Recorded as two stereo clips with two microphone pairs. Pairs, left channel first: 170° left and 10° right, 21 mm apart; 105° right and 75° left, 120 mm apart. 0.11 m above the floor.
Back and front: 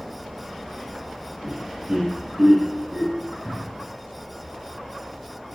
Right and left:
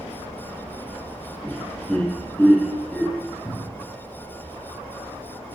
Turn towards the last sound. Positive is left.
turn(degrees=-160)